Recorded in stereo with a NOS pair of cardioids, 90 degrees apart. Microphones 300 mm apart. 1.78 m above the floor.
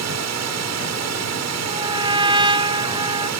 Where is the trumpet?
15° right.